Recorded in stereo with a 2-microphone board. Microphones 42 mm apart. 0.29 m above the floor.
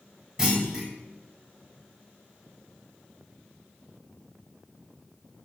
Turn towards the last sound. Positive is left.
turn(degrees=-10)  # may be behind; listen again after turning